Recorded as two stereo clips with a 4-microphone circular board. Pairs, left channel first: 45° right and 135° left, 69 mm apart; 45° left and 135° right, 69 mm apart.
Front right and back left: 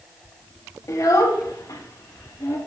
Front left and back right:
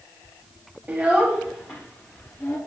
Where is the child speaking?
70° right, 0.7 m; by 2.6 s straight ahead, 1.5 m.